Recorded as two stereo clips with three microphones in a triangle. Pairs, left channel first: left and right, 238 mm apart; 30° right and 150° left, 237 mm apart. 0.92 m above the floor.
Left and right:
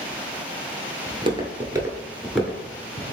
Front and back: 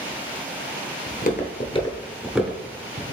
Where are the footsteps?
35° right, 1.2 m; by 3.1 s 150° left, 1.0 m.